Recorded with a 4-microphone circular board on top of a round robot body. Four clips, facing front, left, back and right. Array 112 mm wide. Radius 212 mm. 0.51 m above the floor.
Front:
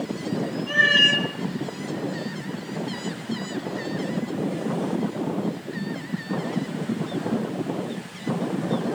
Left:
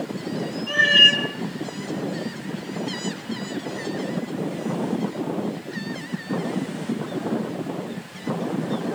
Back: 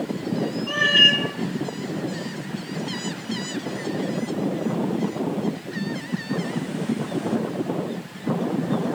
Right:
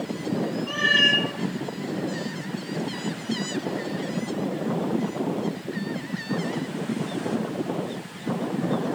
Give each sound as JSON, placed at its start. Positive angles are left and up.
{"t": 0.7, "sound": "a cat meowing", "azimuth_deg": 45, "distance_m": 6.0}